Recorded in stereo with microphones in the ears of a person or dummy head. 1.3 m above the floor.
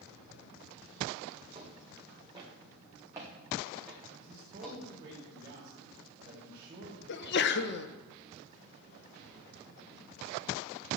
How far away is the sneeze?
About 1.0 m.